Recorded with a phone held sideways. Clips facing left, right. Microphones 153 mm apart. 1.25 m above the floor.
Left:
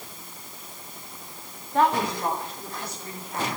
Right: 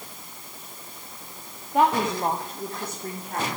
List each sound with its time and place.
1.7 s a woman speaking: 10° right (ahead or behind), 1.9 m; by 3.5 s 65° right (ahead or behind), 3 m